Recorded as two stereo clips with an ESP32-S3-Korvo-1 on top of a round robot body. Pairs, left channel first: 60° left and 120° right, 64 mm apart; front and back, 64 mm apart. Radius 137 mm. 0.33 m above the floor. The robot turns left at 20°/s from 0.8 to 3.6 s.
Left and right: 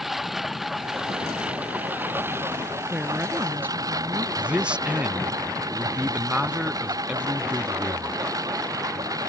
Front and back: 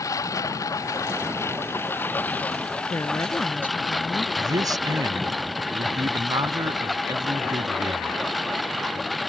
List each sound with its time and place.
0.0 s a lawn mower: 35° right; by 9.3 s 90° right
2.9 s a woman speaking: 45° right; by 4.3 s 60° right
4.4 s a man speaking: 165° left